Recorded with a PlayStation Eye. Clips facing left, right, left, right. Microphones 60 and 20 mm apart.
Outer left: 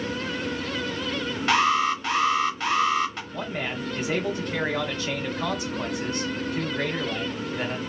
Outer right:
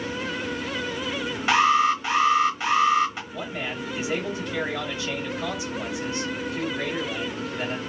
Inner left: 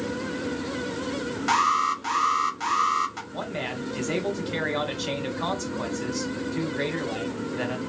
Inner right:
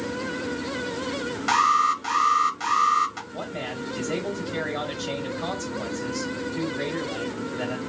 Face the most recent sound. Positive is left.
turn(degrees=50)  # may be behind; listen again after turning